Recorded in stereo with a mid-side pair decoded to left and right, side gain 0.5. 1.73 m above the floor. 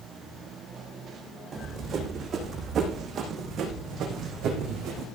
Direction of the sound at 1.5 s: 50° right.